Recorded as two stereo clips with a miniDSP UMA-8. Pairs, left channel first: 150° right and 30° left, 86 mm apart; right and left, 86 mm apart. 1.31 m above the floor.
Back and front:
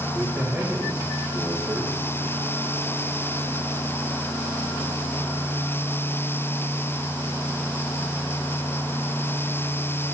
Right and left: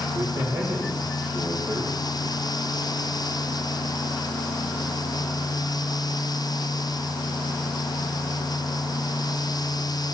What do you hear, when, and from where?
0.1 s a man speaking: 120° left, 5 m